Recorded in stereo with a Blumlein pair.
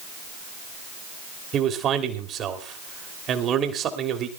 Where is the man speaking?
30° right, 3 m.